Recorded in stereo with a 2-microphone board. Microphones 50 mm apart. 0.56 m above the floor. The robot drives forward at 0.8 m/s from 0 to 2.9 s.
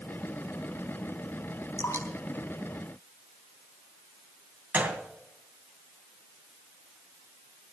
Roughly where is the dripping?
Left.